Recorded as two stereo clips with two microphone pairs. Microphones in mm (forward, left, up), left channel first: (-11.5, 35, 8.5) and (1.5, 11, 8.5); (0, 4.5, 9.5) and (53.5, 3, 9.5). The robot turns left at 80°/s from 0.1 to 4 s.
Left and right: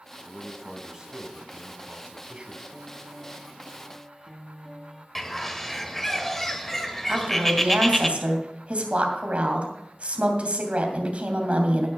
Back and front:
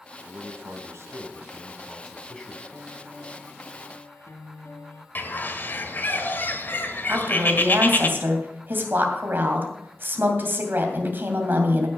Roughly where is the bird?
Behind.